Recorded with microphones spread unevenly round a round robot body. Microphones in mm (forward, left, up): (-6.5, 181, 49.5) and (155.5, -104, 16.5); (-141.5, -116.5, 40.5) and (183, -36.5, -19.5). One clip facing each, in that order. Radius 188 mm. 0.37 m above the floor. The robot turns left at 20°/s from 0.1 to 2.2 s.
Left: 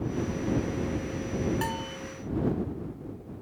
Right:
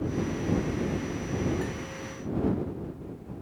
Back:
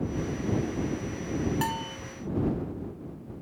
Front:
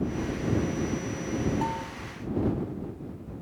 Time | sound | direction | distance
1.6 | a bell | 170° left | ?